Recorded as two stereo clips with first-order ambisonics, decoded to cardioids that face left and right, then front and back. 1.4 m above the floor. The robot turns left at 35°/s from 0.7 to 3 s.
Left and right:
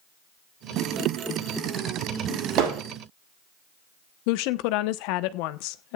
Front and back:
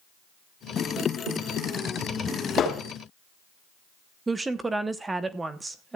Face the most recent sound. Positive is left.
turn(degrees=100)